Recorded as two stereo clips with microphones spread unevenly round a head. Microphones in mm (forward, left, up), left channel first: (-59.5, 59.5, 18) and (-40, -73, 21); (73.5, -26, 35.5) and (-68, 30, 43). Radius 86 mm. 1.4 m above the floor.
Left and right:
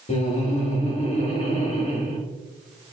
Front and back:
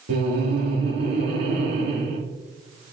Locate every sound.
0.1 s laughter: 135° left, 2.5 m